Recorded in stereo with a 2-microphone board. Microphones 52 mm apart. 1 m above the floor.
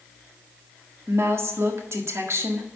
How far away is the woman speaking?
About 1.6 m.